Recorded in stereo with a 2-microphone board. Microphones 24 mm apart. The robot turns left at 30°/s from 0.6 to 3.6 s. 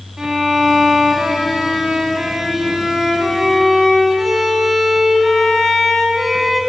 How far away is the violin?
About 1.1 m.